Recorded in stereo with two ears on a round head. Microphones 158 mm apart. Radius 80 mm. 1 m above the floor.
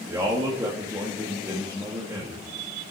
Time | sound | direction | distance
0.1 | a man speaking | 15° right (ahead or behind) | 1.7 m